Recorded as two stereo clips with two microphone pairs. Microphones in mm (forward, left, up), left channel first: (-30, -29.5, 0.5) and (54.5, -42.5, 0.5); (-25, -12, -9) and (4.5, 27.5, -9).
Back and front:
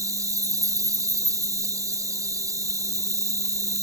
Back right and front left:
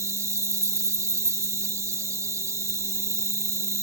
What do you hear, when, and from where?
0.0 s an insect: 40° left